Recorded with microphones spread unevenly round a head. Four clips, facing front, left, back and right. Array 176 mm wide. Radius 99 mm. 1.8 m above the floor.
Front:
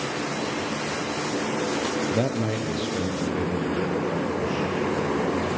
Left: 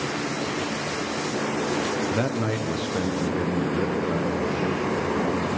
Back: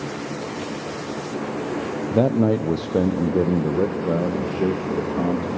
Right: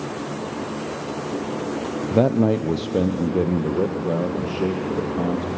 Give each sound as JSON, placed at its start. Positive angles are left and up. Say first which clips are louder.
{"t": 2.1, "sound": "a man speaking", "louder": "right 7 dB, back 7 dB", "azimuth_deg": -120, "distance_m": 0.6}